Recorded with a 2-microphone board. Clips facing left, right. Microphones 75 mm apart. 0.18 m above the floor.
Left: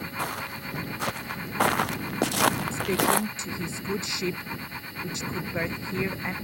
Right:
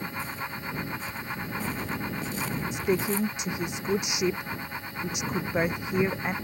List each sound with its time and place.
0.2 s footsteps: 75° left (ahead or behind)
2.7 s a woman speaking: 20° right (ahead or behind)